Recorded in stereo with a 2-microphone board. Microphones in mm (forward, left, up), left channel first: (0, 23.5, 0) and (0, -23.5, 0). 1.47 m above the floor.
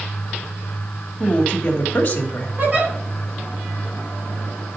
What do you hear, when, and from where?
1.2 s a woman speaking: 30° left (ahead or behind), 2.5 m
2.6 s a giggle: 40° right (ahead or behind), 2.5 m